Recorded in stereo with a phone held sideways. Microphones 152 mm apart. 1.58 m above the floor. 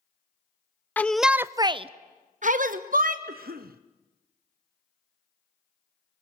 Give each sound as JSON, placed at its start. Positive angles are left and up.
{"t": 1.0, "sound": "a shout", "side_deg": 10, "distance_m": 0.5}
{"t": 3.3, "sound": "a cough", "side_deg": -80, "distance_m": 0.9}